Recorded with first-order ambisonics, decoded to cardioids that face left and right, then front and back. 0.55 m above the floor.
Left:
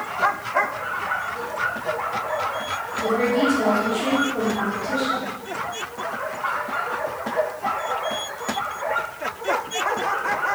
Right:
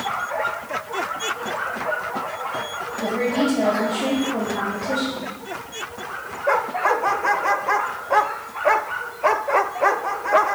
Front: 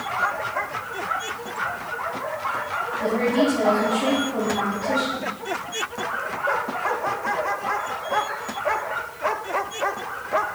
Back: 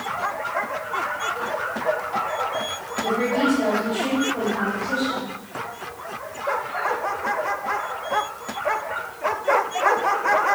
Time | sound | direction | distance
3.0 | a woman speaking | 50° right | 2 m